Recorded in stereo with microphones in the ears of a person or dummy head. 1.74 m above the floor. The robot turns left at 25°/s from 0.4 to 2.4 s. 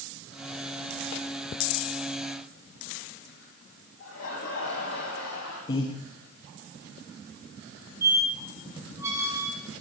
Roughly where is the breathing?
Left.